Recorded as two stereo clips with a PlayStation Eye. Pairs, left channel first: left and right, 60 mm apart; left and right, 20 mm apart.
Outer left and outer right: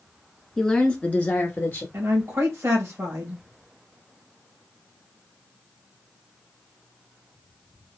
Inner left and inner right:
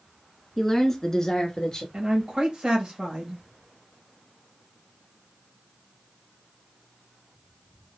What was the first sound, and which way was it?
A woman speaking, 5° left (ahead or behind).